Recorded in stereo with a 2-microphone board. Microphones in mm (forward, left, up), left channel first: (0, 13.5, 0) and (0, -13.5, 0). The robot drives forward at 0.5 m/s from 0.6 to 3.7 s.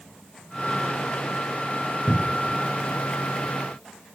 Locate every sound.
2.1 s a cupboard door: 20° right (ahead or behind), 0.5 m; by 2.6 s 15° right (ahead or behind), 0.8 m